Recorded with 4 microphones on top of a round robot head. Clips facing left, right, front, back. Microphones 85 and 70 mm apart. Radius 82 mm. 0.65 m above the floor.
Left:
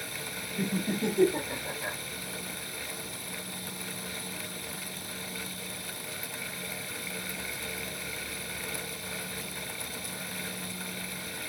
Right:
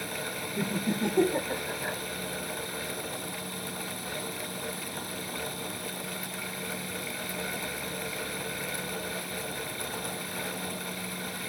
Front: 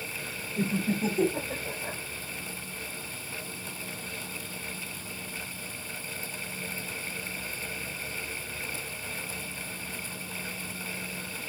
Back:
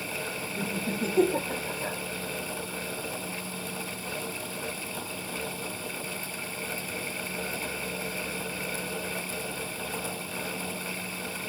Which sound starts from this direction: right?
Laughter, at 0.6 s.